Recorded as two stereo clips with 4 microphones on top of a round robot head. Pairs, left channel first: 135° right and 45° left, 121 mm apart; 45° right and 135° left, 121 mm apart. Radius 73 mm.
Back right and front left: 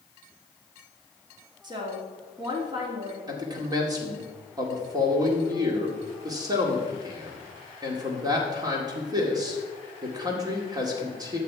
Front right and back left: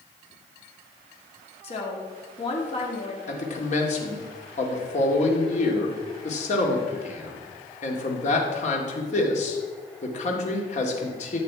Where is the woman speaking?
10° right, 2.5 m.